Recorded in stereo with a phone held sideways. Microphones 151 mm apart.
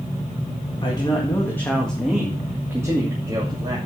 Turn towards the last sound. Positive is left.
turn(degrees=-30)  # may be behind; listen again after turning